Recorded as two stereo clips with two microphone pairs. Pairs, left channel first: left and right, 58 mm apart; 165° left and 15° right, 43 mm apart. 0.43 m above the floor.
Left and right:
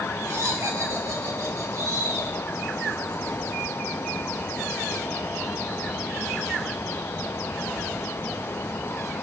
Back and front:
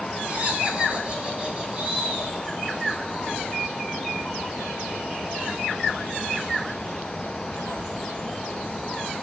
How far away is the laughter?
About 1.9 m.